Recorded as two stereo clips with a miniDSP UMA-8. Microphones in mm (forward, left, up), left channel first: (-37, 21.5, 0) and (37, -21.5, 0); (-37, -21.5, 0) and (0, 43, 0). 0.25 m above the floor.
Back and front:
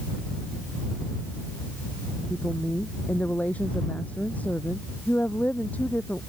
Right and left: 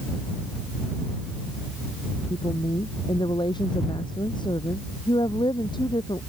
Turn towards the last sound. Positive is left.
turn(degrees=-135)